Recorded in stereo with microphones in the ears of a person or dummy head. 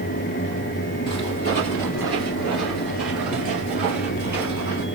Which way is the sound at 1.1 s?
20° left (ahead or behind).